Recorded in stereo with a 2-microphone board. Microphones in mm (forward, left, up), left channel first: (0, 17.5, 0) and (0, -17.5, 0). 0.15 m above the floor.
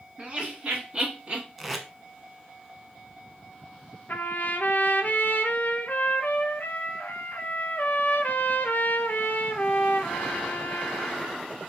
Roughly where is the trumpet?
Left.